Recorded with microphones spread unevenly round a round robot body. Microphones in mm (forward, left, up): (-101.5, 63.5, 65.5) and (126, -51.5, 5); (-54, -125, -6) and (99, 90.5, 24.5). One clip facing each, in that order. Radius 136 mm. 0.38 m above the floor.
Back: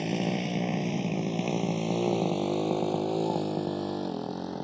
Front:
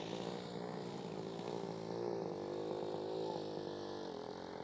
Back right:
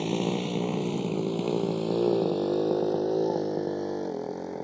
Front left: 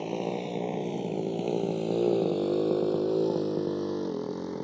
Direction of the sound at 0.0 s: 170° left.